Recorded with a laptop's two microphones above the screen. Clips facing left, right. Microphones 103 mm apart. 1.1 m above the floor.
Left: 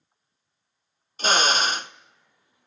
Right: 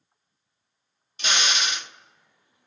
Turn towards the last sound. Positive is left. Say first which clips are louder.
# left 6 dB
turn(degrees=40)  # may be behind; listen again after turning